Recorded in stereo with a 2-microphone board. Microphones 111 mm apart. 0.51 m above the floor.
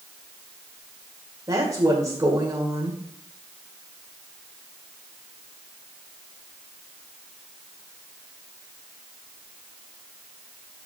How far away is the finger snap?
No finger snap in this recording.